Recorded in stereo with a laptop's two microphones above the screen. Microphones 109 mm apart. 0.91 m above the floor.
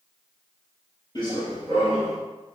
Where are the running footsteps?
35° left (ahead or behind), 1.2 m; by 2.2 s 60° left (ahead or behind), 2 m.